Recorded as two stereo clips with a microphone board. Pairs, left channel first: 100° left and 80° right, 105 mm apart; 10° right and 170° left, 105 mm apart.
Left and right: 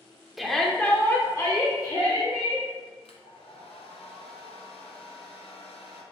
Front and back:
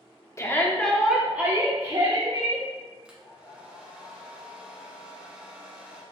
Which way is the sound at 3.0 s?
90° left.